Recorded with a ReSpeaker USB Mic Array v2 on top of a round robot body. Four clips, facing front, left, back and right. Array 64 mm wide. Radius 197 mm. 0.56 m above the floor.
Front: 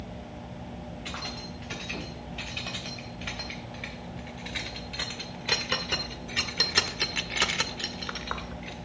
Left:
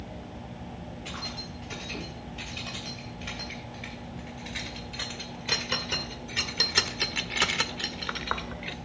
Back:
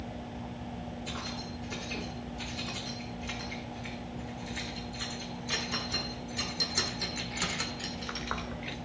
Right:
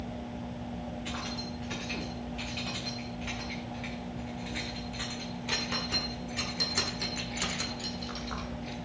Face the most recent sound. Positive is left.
turn(degrees=100)